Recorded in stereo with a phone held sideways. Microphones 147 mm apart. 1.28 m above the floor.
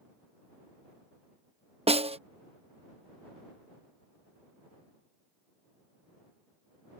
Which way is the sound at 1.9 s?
45° right (ahead or behind).